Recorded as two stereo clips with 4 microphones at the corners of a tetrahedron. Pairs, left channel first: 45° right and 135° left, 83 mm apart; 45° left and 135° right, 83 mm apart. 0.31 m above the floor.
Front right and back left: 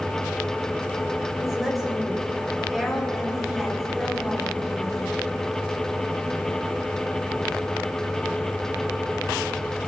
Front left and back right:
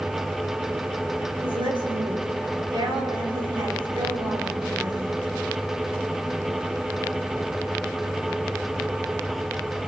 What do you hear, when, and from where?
1.4 s a woman speaking: 135° right, 6.5 m